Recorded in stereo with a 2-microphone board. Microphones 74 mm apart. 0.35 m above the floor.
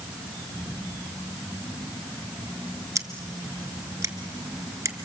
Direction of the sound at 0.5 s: 60° left (ahead or behind).